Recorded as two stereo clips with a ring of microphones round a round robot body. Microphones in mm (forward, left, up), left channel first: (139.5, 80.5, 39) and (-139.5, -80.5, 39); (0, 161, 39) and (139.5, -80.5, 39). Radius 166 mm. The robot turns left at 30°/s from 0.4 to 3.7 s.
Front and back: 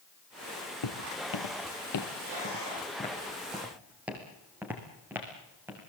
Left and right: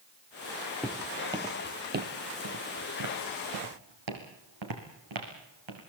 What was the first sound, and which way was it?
Footsteps, 35° left.